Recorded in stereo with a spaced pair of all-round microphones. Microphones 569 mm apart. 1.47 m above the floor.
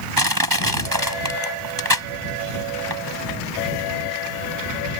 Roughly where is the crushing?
Right.